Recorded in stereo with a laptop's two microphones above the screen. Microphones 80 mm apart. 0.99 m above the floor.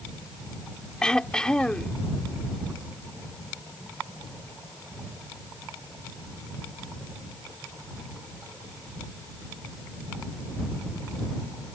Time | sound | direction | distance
1.0 | throat clearing | 10° left (ahead or behind) | ?